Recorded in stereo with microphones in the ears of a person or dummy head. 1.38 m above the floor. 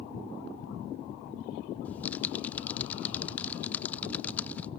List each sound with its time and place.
1.9 s typing on a keyboard: 10° left (ahead or behind), 0.9 m